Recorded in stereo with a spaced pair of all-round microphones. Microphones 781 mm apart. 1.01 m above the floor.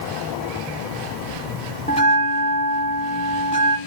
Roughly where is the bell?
Centre.